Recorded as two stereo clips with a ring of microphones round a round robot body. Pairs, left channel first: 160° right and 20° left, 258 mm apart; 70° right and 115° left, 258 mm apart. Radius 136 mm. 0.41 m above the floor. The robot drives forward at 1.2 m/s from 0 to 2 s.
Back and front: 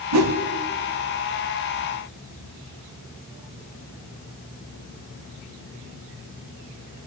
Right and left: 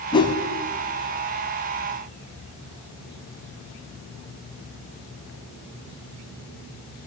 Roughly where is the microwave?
No microwave in this recording.